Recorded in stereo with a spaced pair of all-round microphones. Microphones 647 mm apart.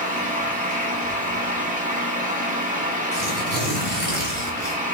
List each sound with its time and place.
0.0 s a fan: 10° right (ahead or behind), 2 m
3.1 s tearing paper: 15° left (ahead or behind), 4 m